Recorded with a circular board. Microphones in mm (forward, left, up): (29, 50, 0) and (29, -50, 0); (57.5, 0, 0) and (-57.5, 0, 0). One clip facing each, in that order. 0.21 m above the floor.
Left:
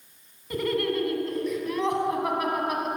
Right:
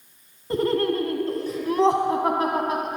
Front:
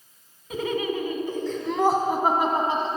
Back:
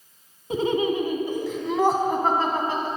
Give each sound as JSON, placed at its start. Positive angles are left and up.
{"t": 0.5, "sound": "laughter", "azimuth_deg": -130, "distance_m": 1.4}